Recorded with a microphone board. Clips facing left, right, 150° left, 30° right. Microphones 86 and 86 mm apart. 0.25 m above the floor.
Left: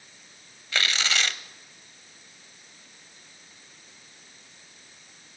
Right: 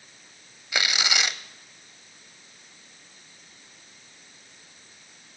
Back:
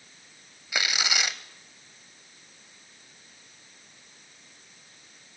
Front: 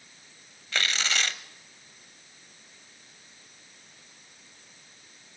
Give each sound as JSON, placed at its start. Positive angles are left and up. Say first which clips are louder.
{"t": 0.7, "sound": "tearing paper", "louder": "even, even", "azimuth_deg": -150, "distance_m": 0.6}